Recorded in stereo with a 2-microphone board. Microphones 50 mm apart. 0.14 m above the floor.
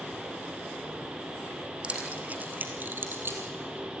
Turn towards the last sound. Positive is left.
turn(degrees=-45)  # may be behind; listen again after turning